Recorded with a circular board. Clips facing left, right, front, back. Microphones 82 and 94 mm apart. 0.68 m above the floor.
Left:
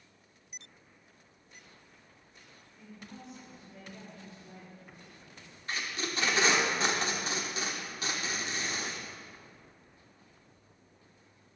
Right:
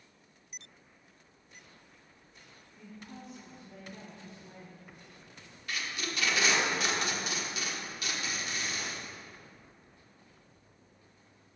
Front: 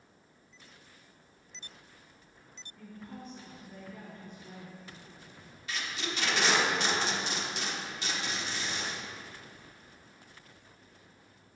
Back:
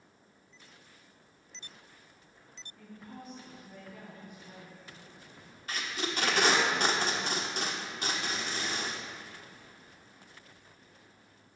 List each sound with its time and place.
2.8 s a woman speaking: 85° right, 3.5 m; by 4.8 s 110° right, 4.5 m
5.7 s tape being pulled: 140° left, 1.2 m